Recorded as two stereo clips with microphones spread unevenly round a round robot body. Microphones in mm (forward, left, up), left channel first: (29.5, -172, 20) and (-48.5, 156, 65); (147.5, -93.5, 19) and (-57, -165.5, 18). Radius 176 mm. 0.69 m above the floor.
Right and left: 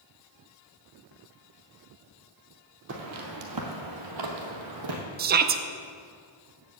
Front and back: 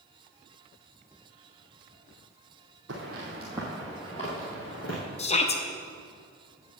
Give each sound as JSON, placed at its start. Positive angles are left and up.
{"t": 2.9, "sound": "footsteps", "azimuth_deg": 150, "distance_m": 1.5}
{"t": 5.2, "sound": "a shout", "azimuth_deg": 50, "distance_m": 0.5}